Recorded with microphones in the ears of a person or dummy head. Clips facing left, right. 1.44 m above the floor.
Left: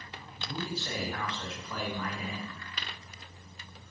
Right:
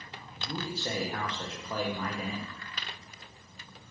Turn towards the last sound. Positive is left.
turn(degrees=-30)  # may be behind; listen again after turning